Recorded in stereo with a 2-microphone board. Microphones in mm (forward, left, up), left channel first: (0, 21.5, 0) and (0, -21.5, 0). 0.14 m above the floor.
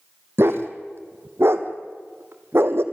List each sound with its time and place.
0.4 s a dog barking: 65° right (ahead or behind), 1.7 m